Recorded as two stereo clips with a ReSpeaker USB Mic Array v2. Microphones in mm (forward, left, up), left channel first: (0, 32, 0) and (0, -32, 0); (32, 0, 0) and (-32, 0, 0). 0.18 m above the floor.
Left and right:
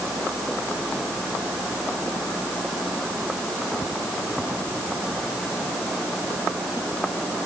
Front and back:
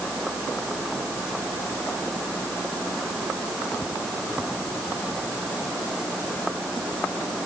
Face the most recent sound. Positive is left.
No sound to turn to.